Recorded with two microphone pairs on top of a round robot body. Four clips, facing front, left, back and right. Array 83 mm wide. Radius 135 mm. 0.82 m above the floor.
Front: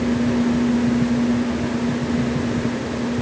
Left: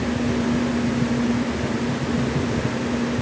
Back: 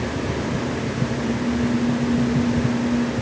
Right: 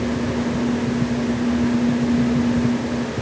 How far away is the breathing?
I don't hear breathing.